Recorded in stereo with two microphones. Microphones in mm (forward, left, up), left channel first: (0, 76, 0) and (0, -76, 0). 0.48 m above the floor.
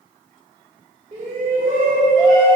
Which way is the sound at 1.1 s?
55° right (ahead or behind).